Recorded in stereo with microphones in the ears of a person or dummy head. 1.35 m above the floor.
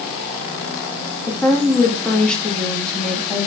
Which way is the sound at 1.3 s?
5° left (ahead or behind).